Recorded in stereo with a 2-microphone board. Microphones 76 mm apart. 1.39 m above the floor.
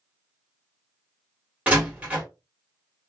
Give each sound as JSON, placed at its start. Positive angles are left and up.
{"t": 1.7, "sound": "a door slam", "side_deg": -20, "distance_m": 1.6}